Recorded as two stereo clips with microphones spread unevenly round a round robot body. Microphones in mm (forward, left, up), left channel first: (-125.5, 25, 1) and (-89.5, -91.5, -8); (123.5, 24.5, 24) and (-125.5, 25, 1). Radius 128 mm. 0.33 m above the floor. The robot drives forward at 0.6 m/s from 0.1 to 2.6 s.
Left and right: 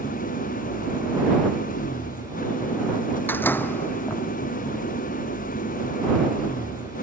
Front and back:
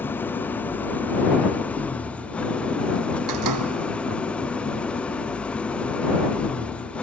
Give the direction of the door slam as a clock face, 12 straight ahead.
6 o'clock.